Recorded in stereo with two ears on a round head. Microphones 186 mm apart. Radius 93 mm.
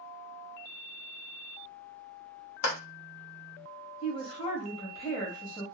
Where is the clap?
65° left (ahead or behind), 1.1 m.